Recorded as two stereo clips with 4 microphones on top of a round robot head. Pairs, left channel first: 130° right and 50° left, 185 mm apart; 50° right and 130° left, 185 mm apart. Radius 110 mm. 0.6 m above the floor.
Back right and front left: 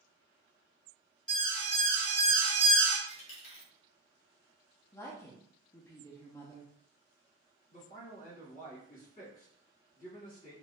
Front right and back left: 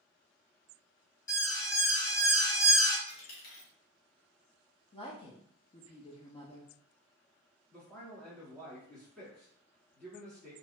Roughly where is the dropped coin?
Right.